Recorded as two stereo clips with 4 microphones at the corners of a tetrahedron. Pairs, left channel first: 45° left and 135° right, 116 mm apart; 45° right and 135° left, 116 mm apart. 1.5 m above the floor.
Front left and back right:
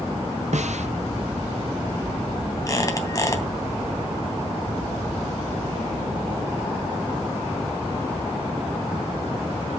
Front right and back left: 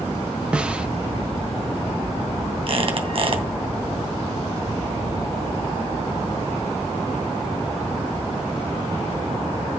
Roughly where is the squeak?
Left.